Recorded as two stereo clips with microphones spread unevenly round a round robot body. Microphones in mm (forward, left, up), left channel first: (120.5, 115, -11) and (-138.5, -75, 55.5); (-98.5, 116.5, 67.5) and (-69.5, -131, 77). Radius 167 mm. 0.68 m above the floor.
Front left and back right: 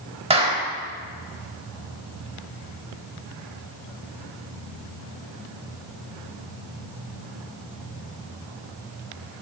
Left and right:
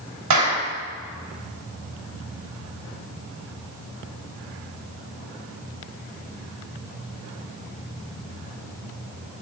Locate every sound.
0.3 s a clap: 70° right, 4.5 m